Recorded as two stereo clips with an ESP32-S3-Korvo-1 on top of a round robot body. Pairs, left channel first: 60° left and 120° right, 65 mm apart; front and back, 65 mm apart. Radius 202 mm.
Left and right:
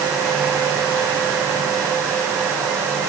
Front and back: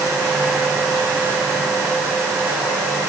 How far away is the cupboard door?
I don't hear a cupboard door.